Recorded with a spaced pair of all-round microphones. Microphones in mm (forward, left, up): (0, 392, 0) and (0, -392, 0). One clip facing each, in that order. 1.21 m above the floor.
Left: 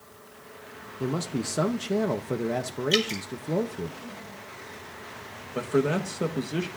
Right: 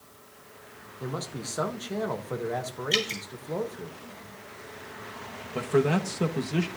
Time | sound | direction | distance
1.0 | a man speaking | 60° left (ahead or behind) | 0.8 m
2.9 | dripping | 20° left (ahead or behind) | 2 m
5.5 | a man speaking | 30° right (ahead or behind) | 1.1 m